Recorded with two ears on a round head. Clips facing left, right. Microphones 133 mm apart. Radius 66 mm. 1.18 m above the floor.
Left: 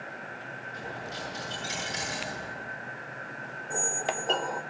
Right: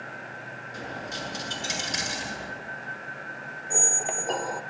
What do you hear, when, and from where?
0.7 s a dropped coin: 60° right (ahead or behind), 7.5 m
3.7 s a squeak: 10° right (ahead or behind), 0.9 m